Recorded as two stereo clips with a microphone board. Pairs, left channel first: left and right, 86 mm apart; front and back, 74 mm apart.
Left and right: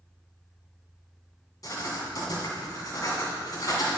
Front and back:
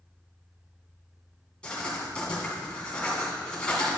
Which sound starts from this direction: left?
Writing, at 1.6 s.